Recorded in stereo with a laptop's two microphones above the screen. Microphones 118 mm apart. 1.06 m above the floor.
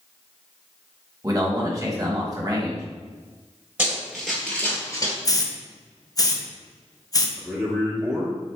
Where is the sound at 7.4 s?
Centre (ahead or behind), 1.0 m.